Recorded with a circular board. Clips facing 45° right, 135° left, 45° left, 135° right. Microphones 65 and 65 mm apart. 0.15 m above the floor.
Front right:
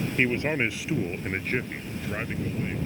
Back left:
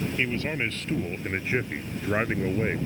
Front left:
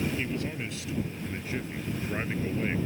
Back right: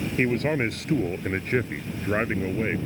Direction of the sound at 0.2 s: 110° right.